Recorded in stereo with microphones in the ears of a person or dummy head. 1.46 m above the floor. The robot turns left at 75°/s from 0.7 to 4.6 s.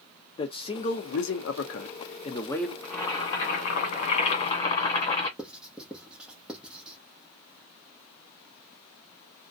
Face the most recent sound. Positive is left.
turn(degrees=-5)  # may be behind; listen again after turning